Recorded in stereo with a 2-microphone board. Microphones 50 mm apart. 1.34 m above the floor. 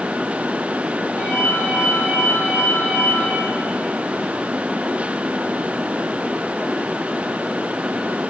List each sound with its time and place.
1.2 s a ringtone: 50° left (ahead or behind), 3.5 m